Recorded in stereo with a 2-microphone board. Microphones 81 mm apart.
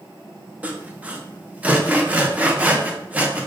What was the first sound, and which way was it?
Sawing, 15° right (ahead or behind).